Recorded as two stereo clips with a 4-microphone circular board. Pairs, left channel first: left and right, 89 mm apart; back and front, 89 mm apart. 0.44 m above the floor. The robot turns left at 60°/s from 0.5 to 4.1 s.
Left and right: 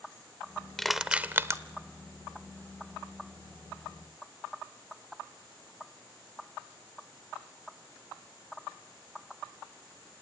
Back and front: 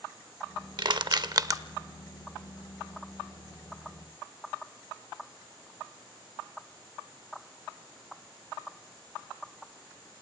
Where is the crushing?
5° left, 0.7 m; by 1.6 s 45° right, 0.7 m.